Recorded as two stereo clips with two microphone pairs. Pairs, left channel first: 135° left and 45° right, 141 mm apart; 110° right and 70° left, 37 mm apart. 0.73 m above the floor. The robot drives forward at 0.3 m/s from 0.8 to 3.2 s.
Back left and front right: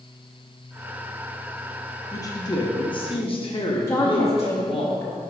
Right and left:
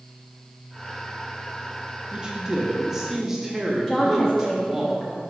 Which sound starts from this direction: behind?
A woman speaking, at 3.9 s.